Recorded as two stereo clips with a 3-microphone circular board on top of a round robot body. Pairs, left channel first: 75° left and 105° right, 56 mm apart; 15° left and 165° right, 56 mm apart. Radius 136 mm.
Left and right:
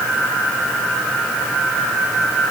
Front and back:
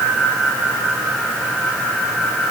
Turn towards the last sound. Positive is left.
No sound to turn to.